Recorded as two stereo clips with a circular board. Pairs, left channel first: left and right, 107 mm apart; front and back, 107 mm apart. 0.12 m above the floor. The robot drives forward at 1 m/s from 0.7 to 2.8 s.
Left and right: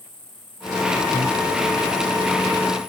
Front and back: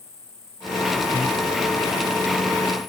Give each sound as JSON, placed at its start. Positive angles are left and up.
{"t": 0.0, "sound": "an insect", "azimuth_deg": -60}
{"t": 1.1, "sound": "breathing", "azimuth_deg": 70}